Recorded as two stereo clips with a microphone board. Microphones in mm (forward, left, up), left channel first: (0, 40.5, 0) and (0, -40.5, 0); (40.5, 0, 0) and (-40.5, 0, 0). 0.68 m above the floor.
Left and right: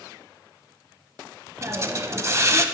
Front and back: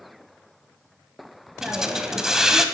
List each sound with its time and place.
1.6 s a hiss: 100° right, 0.6 m